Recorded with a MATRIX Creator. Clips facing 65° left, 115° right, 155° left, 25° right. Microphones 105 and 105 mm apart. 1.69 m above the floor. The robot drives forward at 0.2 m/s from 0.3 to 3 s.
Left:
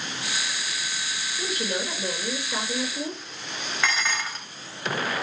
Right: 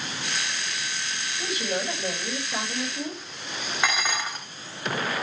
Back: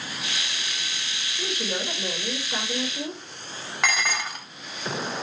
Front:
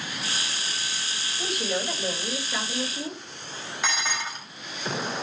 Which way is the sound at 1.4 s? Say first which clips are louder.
Even, front 1 dB; 105° left.